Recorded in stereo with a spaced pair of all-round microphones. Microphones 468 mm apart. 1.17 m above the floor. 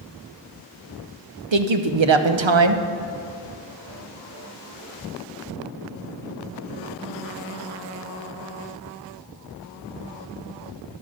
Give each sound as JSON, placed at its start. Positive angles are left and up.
{"t": 1.5, "sound": "a woman speaking", "side_deg": -70, "distance_m": 0.7}